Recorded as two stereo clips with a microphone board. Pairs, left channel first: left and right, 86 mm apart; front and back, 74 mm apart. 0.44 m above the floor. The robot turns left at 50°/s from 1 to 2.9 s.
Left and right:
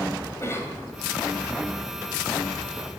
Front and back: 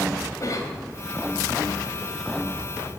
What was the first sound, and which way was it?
A cough, 35° left.